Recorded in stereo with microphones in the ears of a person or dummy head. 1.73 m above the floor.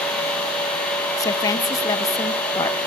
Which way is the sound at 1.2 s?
25° left (ahead or behind).